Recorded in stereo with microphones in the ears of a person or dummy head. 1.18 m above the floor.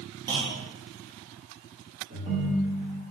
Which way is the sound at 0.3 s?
20° right (ahead or behind).